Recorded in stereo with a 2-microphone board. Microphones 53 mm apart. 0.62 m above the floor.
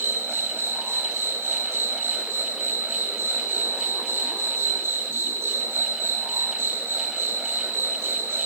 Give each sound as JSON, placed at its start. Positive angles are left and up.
{"t": 0.0, "sound": "an insect", "side_deg": -45, "distance_m": 5.0}